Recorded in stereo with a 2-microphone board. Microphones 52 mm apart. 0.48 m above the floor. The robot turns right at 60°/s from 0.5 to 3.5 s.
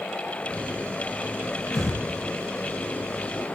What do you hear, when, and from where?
1.7 s breathing: 70° left (ahead or behind), 6.5 m; by 2.0 s 85° left, 6.5 m